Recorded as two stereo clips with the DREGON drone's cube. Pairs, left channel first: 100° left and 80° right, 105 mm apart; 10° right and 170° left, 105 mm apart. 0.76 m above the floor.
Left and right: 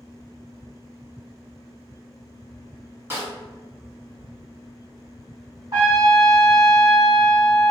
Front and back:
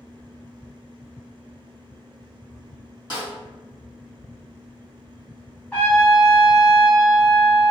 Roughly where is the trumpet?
Right.